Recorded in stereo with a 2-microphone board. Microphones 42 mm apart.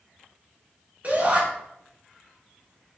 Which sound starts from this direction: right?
A shout, at 1.0 s.